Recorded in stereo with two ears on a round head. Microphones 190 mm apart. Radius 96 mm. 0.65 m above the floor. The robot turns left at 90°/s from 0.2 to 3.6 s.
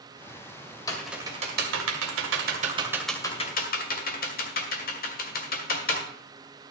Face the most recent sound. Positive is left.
turn(degrees=45)  # may be behind; listen again after turning